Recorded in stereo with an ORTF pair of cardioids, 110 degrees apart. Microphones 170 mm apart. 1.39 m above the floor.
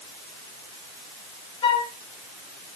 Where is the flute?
35° left, 1.5 m.